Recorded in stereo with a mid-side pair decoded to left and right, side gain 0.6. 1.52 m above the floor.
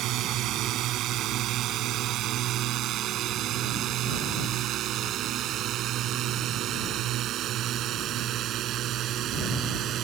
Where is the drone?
60° right; by 10.0 s 55° right.